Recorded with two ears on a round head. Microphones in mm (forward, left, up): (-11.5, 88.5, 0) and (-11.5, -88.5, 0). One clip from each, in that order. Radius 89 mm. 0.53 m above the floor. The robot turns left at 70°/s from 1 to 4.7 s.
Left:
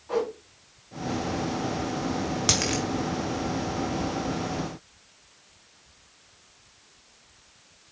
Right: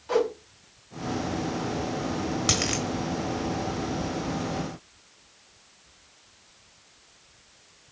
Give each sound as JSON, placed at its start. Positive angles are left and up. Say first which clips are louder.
{"t": 0.1, "sound": "a whoosh", "louder": "right 3 dB", "side_deg": -70, "distance_m": 4.0}
{"t": 2.5, "sound": "a dropped coin", "louder": "left 1 dB", "side_deg": 10, "distance_m": 1.4}